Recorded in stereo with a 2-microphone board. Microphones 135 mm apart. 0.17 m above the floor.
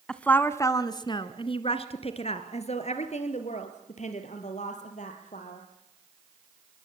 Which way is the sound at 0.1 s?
5° left (ahead or behind).